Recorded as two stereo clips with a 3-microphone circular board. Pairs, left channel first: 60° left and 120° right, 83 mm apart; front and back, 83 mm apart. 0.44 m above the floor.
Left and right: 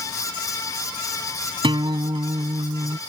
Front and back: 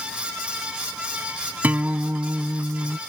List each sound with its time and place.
1.6 s a guitar: 110° right